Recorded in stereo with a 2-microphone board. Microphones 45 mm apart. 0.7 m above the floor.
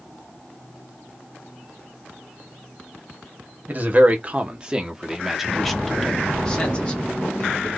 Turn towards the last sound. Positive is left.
turn(degrees=35)  # may be behind; listen again after turning